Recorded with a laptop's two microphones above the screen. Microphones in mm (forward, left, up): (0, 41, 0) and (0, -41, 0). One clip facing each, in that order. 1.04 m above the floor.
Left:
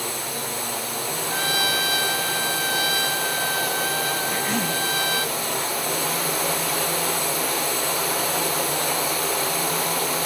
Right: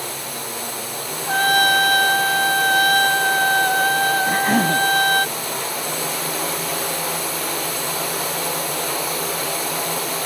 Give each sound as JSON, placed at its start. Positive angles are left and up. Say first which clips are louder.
{"t": 1.3, "sound": "a trumpet", "louder": "right 10 dB", "side_deg": -50}
{"t": 4.3, "sound": "a cough", "louder": "right 7 dB", "side_deg": -50}